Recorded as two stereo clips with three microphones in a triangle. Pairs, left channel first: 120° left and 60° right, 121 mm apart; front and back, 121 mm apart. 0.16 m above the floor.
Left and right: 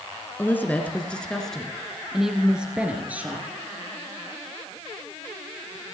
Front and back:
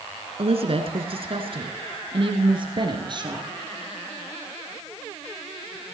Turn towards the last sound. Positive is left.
turn(degrees=-135)